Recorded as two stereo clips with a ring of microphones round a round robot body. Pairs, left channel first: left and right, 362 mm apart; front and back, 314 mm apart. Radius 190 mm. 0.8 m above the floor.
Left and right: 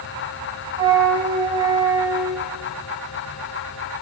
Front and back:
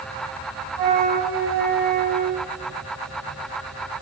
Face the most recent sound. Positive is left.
turn(degrees=-170)